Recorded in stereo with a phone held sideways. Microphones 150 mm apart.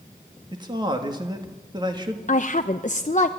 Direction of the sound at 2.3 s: 55° left (ahead or behind).